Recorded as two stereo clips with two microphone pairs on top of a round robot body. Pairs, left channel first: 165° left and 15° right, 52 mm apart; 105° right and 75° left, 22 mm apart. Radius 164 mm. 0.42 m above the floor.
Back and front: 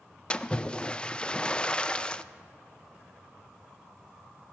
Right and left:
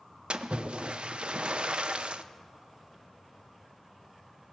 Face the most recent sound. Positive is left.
turn(degrees=95)